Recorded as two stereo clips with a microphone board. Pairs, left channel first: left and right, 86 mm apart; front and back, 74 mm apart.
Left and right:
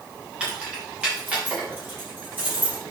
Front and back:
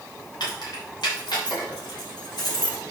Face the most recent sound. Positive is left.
turn(degrees=-25)